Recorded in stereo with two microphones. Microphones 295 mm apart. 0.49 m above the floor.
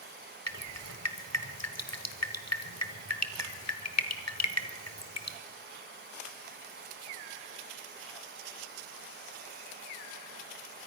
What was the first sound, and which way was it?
Dripping, 60° left (ahead or behind).